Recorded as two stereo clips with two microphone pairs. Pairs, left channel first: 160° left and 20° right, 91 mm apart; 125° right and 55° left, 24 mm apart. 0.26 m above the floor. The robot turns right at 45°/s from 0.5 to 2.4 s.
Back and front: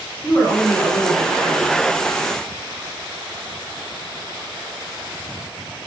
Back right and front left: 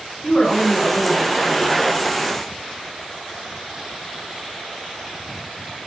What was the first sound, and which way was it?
A woman speaking, 165° right.